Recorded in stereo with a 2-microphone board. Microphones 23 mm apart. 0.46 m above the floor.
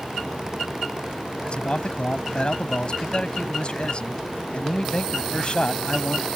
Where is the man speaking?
45° left (ahead or behind).